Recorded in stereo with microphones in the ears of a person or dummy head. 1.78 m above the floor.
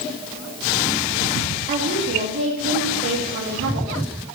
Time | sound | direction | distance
1.7 | a woman speaking | 50° right (ahead or behind) | 2.5 m